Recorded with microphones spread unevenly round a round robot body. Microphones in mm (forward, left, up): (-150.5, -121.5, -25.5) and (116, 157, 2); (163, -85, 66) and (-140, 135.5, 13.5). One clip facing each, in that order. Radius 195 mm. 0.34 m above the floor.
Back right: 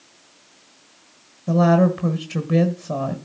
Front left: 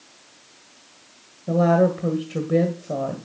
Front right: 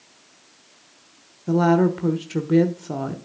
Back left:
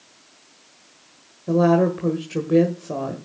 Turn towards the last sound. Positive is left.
turn(degrees=-105)